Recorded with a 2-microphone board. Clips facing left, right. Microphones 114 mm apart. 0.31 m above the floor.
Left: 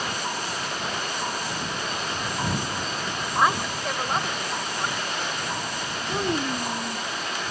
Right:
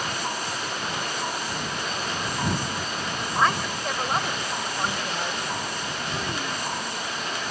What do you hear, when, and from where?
3.4 s a woman speaking: 15° left (ahead or behind); by 5.5 s 30° right (ahead or behind)
6.1 s a child speaking: 40° left (ahead or behind)